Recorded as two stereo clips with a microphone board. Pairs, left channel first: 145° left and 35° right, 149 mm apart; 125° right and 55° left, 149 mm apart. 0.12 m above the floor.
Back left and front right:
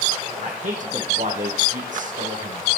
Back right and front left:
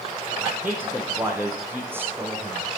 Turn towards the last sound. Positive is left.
turn(degrees=-20)